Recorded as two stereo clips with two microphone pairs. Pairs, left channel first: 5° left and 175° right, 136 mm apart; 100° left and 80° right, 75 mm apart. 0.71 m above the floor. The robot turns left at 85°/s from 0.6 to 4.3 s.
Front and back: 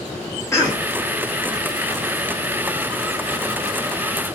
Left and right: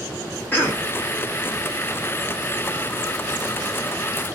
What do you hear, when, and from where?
0.5 s a cough: 60° left, 1.2 m; by 0.9 s 35° left, 1.2 m